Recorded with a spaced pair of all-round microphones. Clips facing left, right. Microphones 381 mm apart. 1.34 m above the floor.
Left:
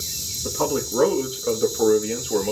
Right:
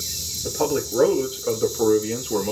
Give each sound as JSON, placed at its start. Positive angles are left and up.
{"t": 0.4, "sound": "a man speaking", "side_deg": 10, "distance_m": 2.5}